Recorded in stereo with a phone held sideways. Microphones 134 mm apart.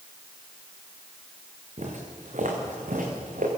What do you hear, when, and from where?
1.8 s footsteps: 60° right (ahead or behind), 4.5 m; by 3.5 s 80° right, 5.5 m